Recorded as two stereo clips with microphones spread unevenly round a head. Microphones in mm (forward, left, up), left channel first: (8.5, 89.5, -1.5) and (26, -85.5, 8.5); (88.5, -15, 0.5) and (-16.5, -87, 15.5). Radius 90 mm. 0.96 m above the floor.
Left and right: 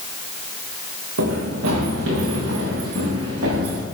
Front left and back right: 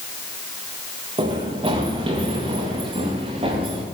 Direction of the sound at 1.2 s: 100° right.